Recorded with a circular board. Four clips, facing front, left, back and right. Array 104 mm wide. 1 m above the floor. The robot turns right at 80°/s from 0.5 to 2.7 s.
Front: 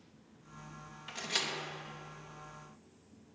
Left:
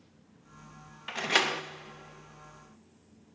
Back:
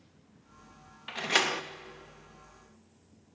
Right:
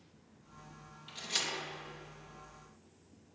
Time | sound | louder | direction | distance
1.1 | a door slam | left 12 dB, back 10 dB | 105° left | 0.7 m